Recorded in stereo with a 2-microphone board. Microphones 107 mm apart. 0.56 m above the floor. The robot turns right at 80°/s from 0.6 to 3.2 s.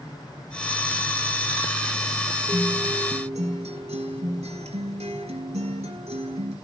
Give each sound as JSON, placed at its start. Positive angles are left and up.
{"t": 2.5, "sound": "a guitar", "azimuth_deg": -140, "distance_m": 2.5}